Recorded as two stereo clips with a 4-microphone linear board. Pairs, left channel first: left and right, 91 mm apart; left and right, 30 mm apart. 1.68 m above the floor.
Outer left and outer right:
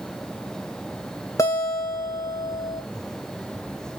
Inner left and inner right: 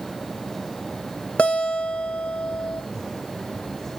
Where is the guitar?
35° left (ahead or behind), 2.5 m.